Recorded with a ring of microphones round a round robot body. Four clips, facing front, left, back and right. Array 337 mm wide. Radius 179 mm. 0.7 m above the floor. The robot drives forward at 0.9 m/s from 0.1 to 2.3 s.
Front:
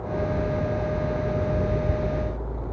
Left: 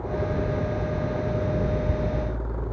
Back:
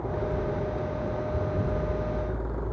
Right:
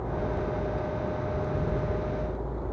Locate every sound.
Only background noise.